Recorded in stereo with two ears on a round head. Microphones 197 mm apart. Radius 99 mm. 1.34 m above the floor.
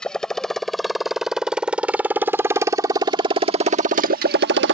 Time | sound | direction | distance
0.0 | a motorcycle | 5° left (ahead or behind) | ?